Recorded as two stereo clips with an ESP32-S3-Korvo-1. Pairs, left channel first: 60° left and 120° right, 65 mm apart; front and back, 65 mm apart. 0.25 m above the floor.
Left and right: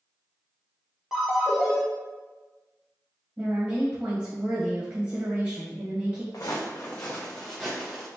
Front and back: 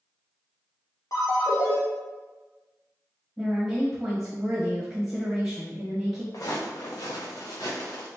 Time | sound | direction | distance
1.1 | a ringtone | 40° right | 1.9 m
3.4 | a woman speaking | 90° right | 1.4 m
6.3 | footsteps | 25° left | 1.3 m